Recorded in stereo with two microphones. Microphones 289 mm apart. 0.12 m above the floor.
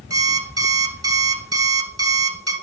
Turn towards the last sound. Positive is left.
turn(degrees=-55)  # may be behind; listen again after turning